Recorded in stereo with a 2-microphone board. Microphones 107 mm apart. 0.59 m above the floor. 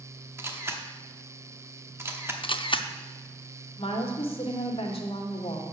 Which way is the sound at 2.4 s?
55° left (ahead or behind).